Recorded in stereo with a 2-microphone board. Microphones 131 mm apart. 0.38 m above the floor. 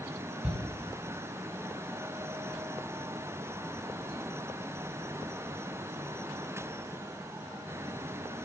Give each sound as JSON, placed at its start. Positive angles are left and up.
{"t": 0.4, "sound": "a shout", "side_deg": -15, "distance_m": 3.0}